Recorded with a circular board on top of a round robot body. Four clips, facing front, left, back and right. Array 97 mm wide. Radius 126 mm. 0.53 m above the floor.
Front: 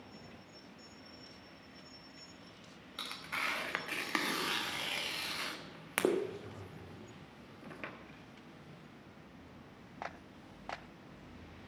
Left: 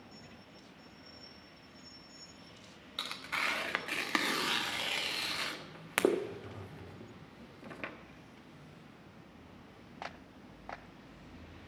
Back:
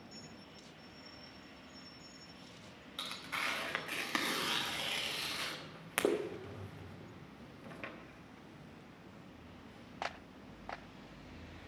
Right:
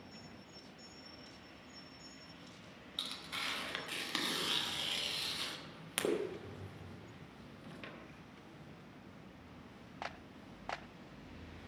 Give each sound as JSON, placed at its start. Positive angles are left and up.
{"t": 3.0, "sound": "tearing paper", "azimuth_deg": 80, "distance_m": 1.6}